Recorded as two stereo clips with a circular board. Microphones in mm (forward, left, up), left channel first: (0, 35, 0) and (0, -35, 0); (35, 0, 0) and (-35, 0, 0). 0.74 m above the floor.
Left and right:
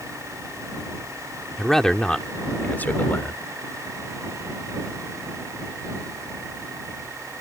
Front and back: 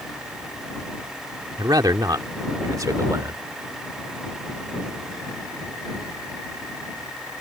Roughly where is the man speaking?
Behind.